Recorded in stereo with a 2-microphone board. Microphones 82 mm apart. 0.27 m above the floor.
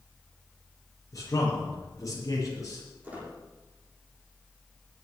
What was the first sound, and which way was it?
A man speaking, 40° left (ahead or behind).